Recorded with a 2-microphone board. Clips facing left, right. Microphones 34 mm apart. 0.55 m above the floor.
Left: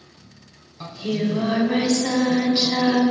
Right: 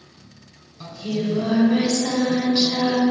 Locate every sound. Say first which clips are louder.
0.8 s singing: left 1 dB; 25° left (ahead or behind), 2 m